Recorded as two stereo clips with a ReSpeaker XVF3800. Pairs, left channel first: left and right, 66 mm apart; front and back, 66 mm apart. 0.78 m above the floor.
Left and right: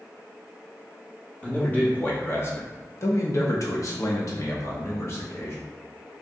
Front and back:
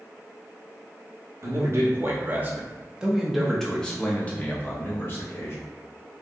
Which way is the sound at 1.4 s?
155° left.